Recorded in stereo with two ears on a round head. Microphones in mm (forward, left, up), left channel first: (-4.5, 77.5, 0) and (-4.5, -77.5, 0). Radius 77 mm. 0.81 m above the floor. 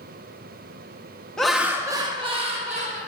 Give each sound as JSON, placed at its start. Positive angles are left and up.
{"t": 1.4, "sound": "laughter", "side_deg": 5, "distance_m": 0.7}